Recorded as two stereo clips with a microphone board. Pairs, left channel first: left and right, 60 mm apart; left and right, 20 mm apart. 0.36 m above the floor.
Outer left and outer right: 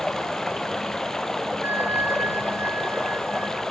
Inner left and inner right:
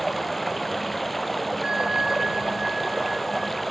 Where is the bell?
45° right (ahead or behind).